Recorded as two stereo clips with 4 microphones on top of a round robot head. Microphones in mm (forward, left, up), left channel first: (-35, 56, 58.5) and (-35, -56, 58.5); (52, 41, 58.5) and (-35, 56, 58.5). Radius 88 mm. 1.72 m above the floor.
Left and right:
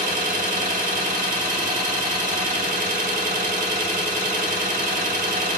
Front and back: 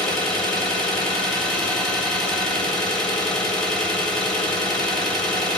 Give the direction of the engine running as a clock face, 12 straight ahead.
3 o'clock.